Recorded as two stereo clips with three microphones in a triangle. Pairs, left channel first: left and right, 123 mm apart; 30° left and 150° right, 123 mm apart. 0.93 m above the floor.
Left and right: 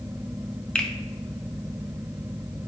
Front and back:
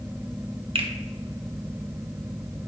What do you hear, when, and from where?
0.8 s a finger snap: 170° left, 0.5 m